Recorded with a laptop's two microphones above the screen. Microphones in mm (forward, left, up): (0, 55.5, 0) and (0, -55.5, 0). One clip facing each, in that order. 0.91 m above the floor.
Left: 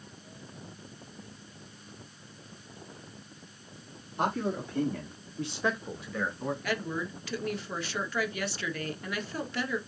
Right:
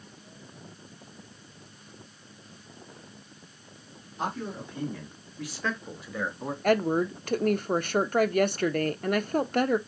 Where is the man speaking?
65° left (ahead or behind), 2 m; by 6.5 s 20° right (ahead or behind), 2 m.